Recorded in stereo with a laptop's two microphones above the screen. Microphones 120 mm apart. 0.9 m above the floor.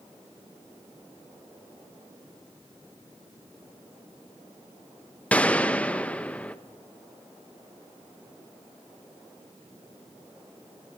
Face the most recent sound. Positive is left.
turn(degrees=10)  # may be behind; listen again after turning